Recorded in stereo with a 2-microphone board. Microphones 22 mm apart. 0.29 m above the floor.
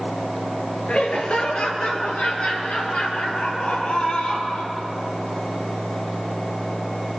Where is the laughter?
55° left (ahead or behind), 4 m.